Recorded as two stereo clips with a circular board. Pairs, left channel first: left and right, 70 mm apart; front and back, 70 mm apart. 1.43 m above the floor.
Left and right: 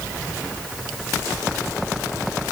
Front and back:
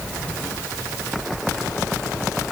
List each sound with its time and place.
Only background noise.